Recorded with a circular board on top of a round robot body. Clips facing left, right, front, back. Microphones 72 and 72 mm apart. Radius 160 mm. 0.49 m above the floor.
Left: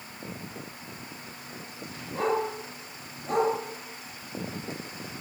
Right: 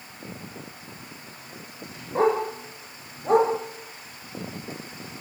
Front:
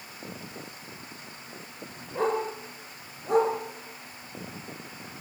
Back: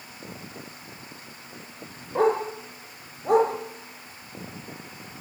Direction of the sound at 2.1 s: 145° right.